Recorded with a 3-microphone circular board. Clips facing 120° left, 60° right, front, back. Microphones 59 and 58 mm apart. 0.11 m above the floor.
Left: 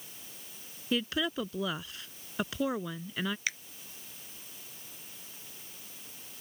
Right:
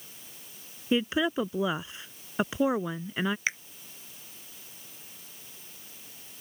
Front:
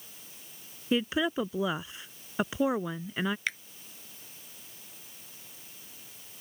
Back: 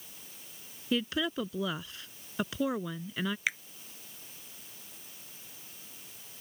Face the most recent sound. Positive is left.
turn(degrees=-100)